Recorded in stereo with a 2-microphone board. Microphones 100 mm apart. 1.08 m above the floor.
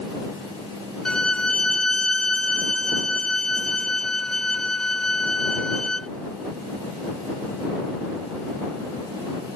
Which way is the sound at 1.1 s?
10° left (ahead or behind).